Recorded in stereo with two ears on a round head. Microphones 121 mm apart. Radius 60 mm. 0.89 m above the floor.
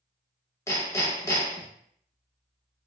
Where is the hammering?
20° left (ahead or behind), 0.7 m.